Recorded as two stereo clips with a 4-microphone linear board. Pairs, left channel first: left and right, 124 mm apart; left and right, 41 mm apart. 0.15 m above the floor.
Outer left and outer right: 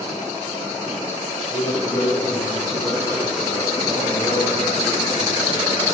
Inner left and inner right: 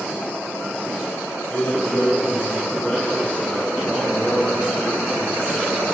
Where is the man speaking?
40° left (ahead or behind), 2 m.